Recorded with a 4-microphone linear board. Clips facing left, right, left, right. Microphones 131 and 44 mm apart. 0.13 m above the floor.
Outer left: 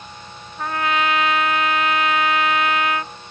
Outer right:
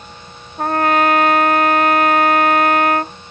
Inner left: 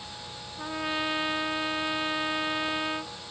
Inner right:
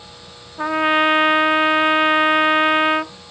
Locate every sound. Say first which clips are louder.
0.6 s a trumpet: outer right 7 dB, inner right 14 dB; 45° right (ahead or behind)